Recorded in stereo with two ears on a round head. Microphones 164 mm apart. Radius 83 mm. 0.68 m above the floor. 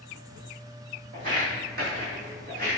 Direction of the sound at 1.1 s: 50° right (ahead or behind).